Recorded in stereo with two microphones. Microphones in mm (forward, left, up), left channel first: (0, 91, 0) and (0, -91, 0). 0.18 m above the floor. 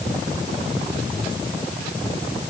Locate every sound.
Only background noise.